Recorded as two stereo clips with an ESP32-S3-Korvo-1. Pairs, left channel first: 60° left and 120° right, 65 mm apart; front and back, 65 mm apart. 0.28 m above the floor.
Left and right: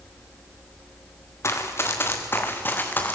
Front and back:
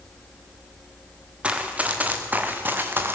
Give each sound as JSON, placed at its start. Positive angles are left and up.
{"t": 1.4, "sound": "running footsteps", "azimuth_deg": 110, "distance_m": 3.0}